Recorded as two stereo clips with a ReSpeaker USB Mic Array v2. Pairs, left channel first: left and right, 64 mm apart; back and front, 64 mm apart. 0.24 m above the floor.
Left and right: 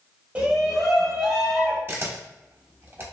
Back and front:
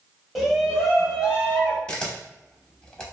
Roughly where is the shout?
Right.